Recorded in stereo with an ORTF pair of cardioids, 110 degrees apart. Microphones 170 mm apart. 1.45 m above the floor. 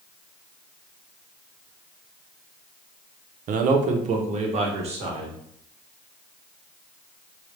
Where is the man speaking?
55° right, 0.6 m; by 5.3 s 35° right, 1.7 m.